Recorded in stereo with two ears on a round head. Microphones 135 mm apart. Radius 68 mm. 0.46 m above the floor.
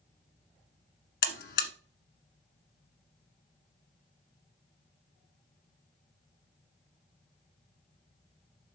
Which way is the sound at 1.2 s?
70° left (ahead or behind).